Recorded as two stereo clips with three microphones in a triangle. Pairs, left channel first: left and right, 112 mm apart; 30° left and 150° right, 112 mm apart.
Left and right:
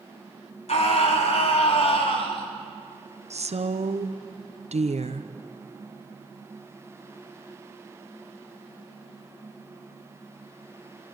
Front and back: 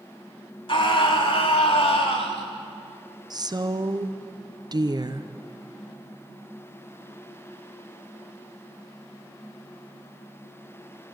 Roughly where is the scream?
Left.